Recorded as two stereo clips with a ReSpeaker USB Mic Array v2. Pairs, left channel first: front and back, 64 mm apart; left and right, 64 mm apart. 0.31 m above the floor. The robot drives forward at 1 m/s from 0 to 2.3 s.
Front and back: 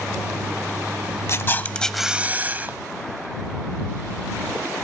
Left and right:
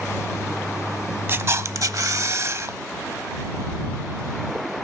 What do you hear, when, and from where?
1.3 s a camera shutter: 40° right, 0.9 m; by 2.8 s 125° right, 0.7 m